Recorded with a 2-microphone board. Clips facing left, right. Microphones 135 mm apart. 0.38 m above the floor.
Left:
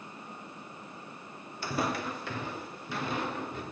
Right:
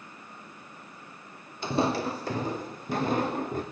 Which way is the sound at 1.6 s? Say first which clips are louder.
Right 6 dB; 20° right (ahead or behind).